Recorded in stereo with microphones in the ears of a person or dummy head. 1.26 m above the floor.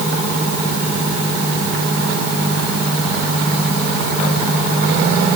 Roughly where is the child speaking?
I don't hear a child speaking.